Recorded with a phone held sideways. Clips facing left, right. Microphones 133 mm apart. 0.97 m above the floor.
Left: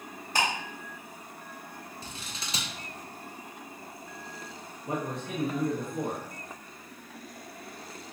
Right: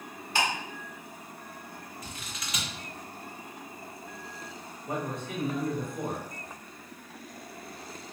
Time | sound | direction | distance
0.3 | ticking | 40° left (ahead or behind) | 1.4 m
2.0 | scissors | 30° left (ahead or behind) | 0.5 m
4.9 | a man speaking | 80° left | 1.4 m